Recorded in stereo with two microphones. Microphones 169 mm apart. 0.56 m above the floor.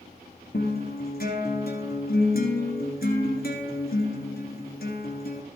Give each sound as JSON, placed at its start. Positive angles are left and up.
{"t": 0.5, "sound": "a guitar", "side_deg": 65, "distance_m": 1.9}